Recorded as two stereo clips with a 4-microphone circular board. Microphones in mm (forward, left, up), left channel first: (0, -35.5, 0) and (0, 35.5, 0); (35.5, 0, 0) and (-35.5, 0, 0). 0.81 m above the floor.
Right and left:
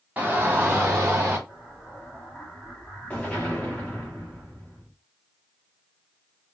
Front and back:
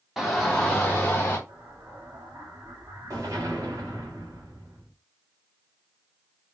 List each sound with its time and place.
0.2 s a shout: 100° left, 1.0 m; by 1.4 s 50° left, 1.3 m
1.5 s an explosion: 155° right, 1.7 m